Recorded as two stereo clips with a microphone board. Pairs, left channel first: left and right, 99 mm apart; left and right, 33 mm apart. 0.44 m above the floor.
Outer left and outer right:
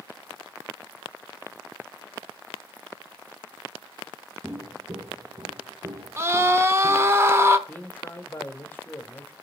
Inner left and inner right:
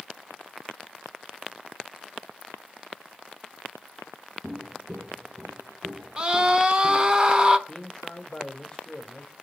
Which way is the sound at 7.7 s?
20° left (ahead or behind).